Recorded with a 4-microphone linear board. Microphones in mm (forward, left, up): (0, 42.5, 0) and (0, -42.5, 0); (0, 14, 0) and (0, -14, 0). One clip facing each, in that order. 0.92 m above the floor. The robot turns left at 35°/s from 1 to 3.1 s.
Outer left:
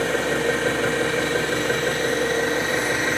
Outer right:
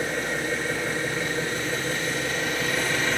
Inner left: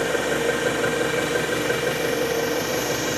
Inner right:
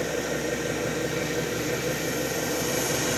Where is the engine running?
85° left, 3.5 m; by 3.2 s 10° left, 3.5 m.